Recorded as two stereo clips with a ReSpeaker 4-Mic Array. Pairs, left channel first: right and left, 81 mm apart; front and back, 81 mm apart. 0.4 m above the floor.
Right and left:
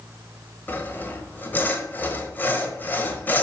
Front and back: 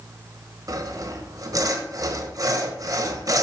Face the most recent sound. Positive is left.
turn(degrees=-150)